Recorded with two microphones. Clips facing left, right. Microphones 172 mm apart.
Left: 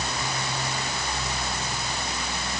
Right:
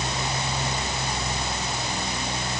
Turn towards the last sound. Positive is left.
No sound to turn to.